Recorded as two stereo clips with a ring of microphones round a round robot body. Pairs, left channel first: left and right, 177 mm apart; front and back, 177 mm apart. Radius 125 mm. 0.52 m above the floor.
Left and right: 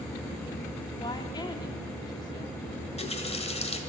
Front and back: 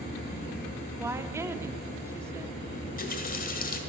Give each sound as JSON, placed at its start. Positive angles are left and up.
{"t": 1.0, "sound": "a woman speaking", "azimuth_deg": 125, "distance_m": 0.7}
{"t": 2.8, "sound": "a running tap", "azimuth_deg": 35, "distance_m": 1.8}